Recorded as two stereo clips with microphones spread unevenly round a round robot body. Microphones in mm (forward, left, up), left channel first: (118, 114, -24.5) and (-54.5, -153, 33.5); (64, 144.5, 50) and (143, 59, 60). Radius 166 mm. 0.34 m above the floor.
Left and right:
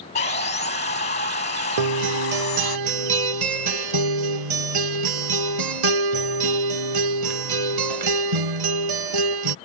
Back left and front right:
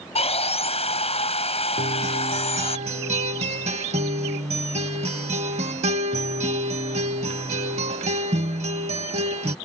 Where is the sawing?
120° left.